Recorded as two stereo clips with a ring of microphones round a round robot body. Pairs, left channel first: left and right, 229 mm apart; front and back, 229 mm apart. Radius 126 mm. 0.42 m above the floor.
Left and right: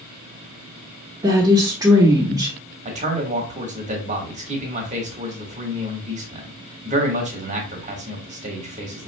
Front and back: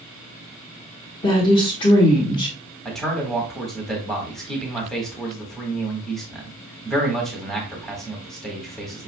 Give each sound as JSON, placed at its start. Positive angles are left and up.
{"t": 1.2, "sound": "a woman speaking", "azimuth_deg": -40, "distance_m": 0.9}
{"t": 2.9, "sound": "a man speaking", "azimuth_deg": -85, "distance_m": 1.2}